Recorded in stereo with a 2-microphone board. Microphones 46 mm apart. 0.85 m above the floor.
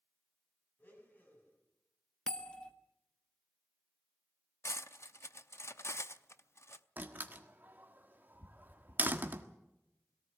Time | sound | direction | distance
0.8 | a blender | 45° left (ahead or behind) | 7.5 m
2.3 | a bell | 20° left (ahead or behind) | 1.4 m
4.6 | cutlery clinking | 70° left (ahead or behind) | 0.6 m
7.0 | a door slam | 40° right (ahead or behind) | 1.5 m